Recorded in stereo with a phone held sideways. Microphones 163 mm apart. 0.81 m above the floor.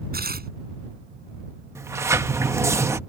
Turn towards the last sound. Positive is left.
turn(degrees=-20)  # may be behind; listen again after turning